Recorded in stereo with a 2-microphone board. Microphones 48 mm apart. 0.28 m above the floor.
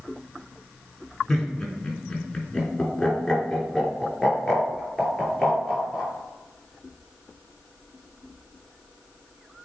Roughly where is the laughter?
Centre.